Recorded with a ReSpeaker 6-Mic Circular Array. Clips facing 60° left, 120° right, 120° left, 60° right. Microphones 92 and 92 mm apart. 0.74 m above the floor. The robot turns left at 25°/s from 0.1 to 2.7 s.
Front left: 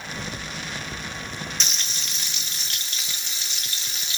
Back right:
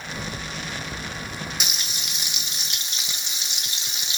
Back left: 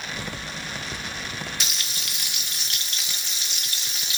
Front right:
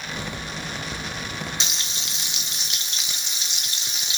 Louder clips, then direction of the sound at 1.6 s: Back right 1 dB, front right 1 dB; 60° right.